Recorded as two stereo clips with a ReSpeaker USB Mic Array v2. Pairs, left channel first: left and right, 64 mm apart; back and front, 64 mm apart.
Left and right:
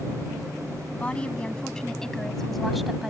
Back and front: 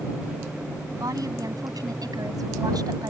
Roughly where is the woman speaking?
Ahead.